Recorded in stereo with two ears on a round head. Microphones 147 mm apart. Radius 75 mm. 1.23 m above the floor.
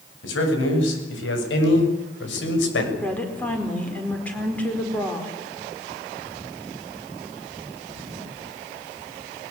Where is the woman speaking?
10° left (ahead or behind), 4.5 m.